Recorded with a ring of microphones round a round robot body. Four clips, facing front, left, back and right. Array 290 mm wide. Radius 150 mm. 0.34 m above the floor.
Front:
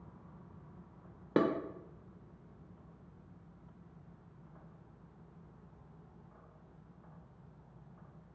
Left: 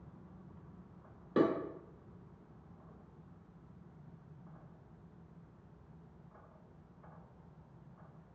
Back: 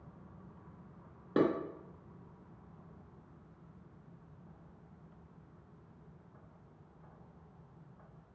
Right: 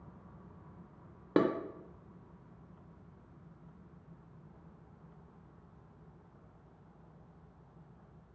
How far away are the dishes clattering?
About 0.7 m.